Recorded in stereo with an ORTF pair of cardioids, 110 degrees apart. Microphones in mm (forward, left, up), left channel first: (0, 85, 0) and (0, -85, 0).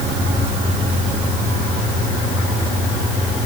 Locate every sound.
Only background noise.